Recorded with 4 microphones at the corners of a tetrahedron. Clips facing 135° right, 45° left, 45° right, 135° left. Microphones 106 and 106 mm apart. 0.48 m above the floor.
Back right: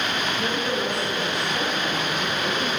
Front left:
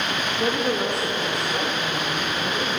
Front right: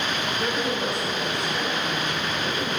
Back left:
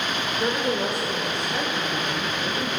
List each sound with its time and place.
0.4 s a woman speaking: 70° left, 1.0 m; by 2.7 s 120° left, 3.5 m